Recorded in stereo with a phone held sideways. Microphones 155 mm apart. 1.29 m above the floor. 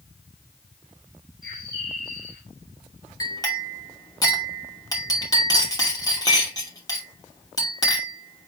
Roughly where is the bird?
Right.